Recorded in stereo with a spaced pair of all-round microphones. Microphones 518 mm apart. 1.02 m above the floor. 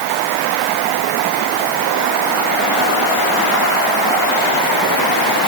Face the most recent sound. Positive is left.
No sound to turn to.